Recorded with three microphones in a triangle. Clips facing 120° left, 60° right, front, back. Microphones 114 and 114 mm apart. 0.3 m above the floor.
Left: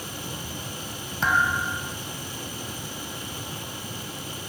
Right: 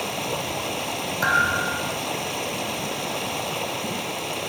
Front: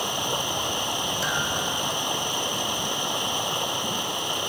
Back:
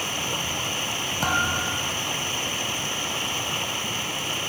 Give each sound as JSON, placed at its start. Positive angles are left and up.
{"t": 0.0, "sound": "running water", "azimuth_deg": -70}
{"t": 1.2, "sound": "a thud", "azimuth_deg": -145}